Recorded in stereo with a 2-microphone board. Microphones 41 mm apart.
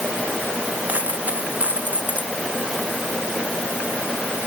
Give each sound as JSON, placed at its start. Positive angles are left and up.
{"t": 0.9, "sound": "a dropped coin", "side_deg": -40}